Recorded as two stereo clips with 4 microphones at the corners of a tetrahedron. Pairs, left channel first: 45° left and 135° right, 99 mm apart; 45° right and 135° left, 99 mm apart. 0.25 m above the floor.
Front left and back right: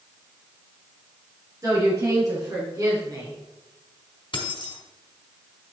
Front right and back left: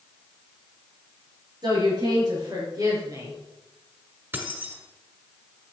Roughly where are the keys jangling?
Left.